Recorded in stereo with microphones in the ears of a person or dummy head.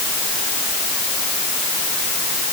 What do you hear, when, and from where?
Only background noise.